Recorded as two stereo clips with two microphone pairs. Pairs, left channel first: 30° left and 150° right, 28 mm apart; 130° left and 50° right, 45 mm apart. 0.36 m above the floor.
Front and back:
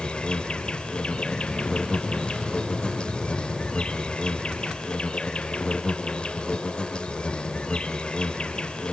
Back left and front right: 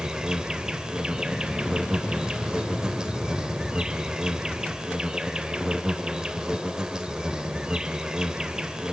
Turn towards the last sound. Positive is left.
turn(degrees=10)